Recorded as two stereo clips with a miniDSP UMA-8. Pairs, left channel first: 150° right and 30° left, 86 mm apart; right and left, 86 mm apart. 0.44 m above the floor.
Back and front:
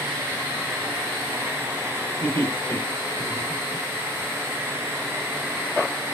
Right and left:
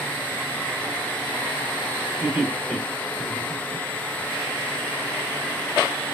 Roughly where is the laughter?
Behind.